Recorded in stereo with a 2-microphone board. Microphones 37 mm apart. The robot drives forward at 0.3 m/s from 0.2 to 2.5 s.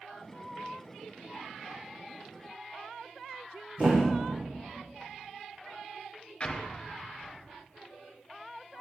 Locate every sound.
3.8 s a thud: 40° right (ahead or behind), 3.5 m
6.4 s an explosion: 25° left (ahead or behind), 1.3 m